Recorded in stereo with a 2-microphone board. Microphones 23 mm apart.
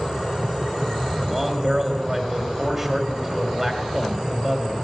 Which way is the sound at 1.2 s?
20° right (ahead or behind).